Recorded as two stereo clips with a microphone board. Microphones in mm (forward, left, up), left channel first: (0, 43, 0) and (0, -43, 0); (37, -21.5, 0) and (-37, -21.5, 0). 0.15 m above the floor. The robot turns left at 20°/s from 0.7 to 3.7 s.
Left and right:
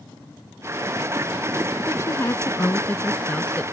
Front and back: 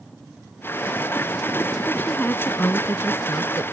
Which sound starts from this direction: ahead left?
A woman speaking, at 1.9 s.